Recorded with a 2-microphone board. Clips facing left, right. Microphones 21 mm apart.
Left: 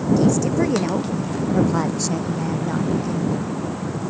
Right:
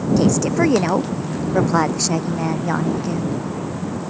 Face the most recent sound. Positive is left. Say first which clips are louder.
# right 4 dB
turn(degrees=-35)  # may be behind; listen again after turning